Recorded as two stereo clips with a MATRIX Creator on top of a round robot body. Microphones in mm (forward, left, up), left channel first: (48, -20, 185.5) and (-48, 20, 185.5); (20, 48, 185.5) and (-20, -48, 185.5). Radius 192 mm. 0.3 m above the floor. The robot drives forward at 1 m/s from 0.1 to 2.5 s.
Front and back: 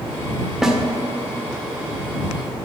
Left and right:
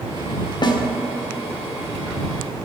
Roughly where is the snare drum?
Left.